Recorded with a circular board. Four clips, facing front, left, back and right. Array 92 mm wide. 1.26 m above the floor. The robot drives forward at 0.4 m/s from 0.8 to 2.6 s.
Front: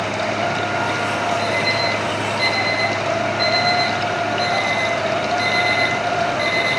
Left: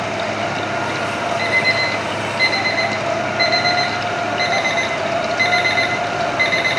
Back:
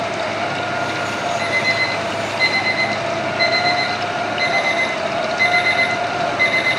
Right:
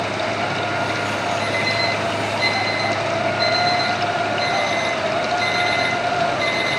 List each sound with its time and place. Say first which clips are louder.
1.4 s an alarm clock: left 2 dB, front 1 dB; 100° left, 9 m; by 6.8 s 105° left, 9 m